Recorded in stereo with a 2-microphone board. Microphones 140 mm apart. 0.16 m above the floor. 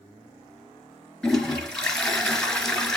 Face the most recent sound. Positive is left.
turn(degrees=5)  # may be behind; listen again after turning